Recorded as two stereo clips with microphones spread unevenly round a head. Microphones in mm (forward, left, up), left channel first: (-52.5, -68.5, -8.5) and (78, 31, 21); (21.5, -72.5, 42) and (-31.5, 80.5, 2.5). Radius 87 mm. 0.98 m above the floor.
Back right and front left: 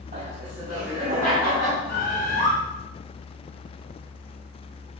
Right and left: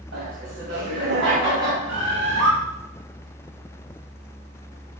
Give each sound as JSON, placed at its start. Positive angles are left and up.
{"t": 0.1, "sound": "laughter", "azimuth_deg": 80, "distance_m": 4.0}
{"t": 1.9, "sound": "a bird", "azimuth_deg": 85, "distance_m": 3.0}